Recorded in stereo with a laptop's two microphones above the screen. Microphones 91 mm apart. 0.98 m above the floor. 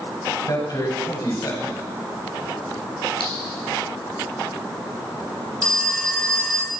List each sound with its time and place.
0.5 s a man speaking: 45° left (ahead or behind), 7.5 m
3.2 s a clink: 80° left, 9.5 m
5.6 s a phone ringing: 10° left (ahead or behind), 3.5 m